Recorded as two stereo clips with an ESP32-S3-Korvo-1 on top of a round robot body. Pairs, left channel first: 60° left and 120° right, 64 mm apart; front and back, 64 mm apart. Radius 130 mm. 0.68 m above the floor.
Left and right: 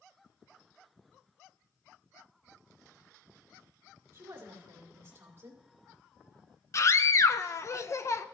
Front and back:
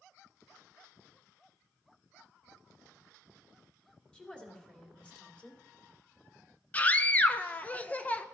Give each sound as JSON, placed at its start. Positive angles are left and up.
{"t": 4.1, "sound": "a woman speaking", "azimuth_deg": -75, "distance_m": 2.5}
{"t": 6.7, "sound": "a scream", "azimuth_deg": 55, "distance_m": 0.8}